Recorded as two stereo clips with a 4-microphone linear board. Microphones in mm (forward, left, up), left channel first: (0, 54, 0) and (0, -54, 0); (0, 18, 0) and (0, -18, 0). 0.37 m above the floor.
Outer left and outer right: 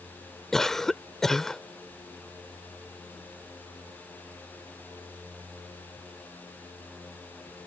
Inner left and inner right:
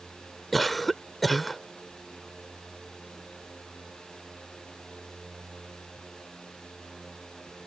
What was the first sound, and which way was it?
A cough, 5° left (ahead or behind).